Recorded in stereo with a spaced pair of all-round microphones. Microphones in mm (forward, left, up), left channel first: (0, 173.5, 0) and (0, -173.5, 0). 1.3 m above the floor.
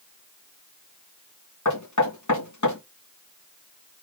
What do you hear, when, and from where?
1.6 s knocking: 55° left (ahead or behind), 1.6 m